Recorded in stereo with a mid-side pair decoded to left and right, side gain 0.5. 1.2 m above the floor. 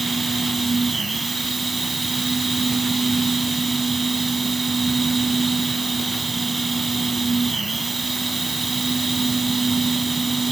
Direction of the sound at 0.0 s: 20° right.